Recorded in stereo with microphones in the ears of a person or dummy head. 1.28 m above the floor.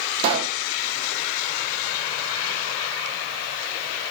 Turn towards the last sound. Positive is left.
turn(degrees=-35)  # may be behind; listen again after turning